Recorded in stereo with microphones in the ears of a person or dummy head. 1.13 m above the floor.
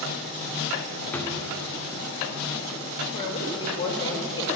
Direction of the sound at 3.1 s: 25° left (ahead or behind).